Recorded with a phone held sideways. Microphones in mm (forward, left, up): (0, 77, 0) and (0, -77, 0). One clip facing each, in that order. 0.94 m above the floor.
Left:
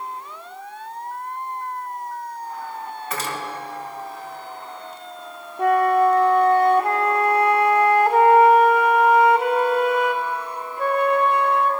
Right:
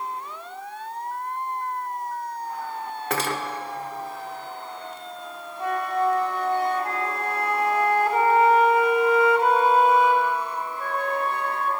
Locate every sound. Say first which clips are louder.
3.1 s cutlery clinking: right 4 dB; 75° right (ahead or behind), 1.3 m
5.6 s a flute: left 8 dB; 70° left (ahead or behind), 0.7 m